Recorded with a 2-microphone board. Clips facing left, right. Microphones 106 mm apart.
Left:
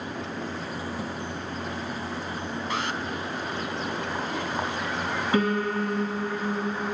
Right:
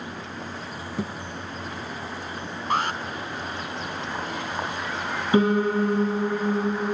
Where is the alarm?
45° right (ahead or behind), 1.7 m.